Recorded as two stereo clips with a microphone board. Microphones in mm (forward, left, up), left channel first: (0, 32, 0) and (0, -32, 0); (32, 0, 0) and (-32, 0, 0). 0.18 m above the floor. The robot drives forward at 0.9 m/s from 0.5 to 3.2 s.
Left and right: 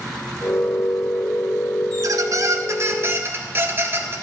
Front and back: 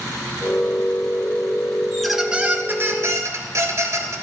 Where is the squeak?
85° right, 1.0 m; by 4.2 s 140° right, 1.4 m.